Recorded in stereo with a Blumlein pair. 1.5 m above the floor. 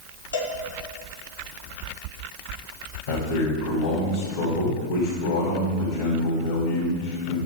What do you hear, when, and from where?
0.3 s a cowbell: 70° left, 2 m
3.1 s a man speaking: 60° left, 3 m